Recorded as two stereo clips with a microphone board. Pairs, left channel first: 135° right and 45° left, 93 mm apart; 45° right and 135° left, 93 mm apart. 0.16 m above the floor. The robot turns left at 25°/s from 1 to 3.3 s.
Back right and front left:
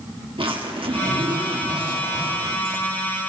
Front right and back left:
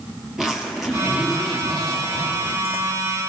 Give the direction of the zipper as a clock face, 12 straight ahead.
10 o'clock.